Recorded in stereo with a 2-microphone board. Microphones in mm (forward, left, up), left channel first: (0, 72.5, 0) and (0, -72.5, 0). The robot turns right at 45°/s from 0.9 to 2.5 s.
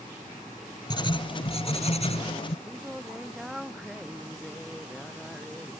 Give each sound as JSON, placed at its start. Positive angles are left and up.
{"t": 0.9, "sound": "writing", "azimuth_deg": 45}
{"t": 2.6, "sound": "singing", "side_deg": -5}